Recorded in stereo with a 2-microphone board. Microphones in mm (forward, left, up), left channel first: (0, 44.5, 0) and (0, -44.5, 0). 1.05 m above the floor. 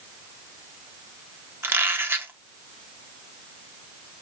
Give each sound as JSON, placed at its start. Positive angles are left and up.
{"t": 1.6, "sound": "a squeak", "side_deg": -25, "distance_m": 0.8}